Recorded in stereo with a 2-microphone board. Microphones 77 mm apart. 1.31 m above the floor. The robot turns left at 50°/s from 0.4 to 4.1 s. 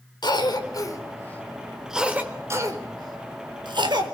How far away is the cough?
About 4.5 m.